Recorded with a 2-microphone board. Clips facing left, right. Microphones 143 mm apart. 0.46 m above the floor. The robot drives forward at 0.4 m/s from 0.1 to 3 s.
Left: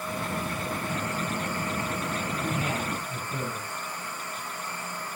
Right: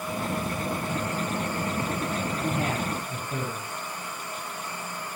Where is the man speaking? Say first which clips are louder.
Right 2 dB; 60° right (ahead or behind), 5.5 m; by 3.7 s 65° right (ahead or behind), 5.5 m.